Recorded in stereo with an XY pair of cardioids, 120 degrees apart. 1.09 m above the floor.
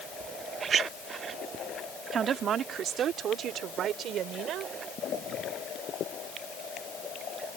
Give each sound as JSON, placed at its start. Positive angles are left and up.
{"t": 2.1, "sound": "a woman speaking", "azimuth_deg": -55}